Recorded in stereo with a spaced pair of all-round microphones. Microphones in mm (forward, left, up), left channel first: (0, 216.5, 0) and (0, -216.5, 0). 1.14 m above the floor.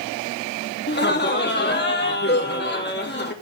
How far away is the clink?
No clink in this recording.